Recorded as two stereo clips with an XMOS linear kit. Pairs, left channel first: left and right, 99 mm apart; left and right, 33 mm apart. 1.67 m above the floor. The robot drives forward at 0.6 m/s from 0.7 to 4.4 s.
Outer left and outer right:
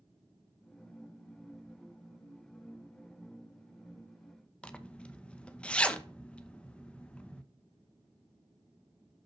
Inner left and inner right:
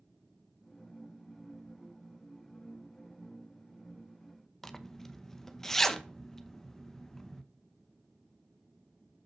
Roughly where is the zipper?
Centre.